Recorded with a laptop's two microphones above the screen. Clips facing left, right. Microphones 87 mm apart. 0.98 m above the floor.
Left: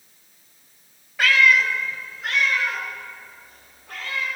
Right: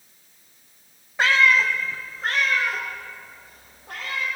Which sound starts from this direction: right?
A cat meowing, at 1.2 s.